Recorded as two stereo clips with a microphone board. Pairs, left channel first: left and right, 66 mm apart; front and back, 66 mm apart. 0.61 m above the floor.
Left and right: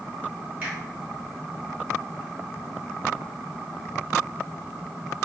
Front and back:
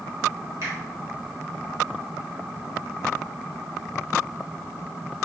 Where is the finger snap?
155° right, 1.5 m.